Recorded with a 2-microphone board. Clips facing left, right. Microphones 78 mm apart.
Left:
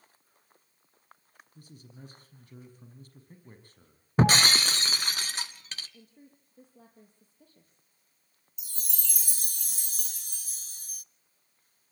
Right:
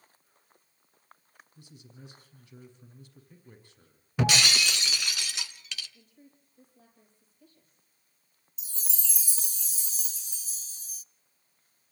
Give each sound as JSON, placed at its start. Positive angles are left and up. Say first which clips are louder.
{"t": 1.6, "sound": "a man speaking", "louder": "left 2 dB", "side_deg": 45, "distance_m": 5.5}
{"t": 4.2, "sound": "breaking glass", "louder": "left 3 dB", "side_deg": 40, "distance_m": 1.2}
{"t": 5.9, "sound": "a woman speaking", "louder": "left 3 dB", "side_deg": 55, "distance_m": 4.5}
{"t": 8.6, "sound": "a chime", "louder": "left 1 dB", "side_deg": 60, "distance_m": 0.5}